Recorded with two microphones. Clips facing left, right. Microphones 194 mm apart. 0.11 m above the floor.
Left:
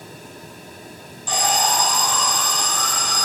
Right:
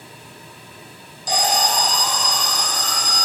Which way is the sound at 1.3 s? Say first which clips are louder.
Right 1 dB; 40° right (ahead or behind).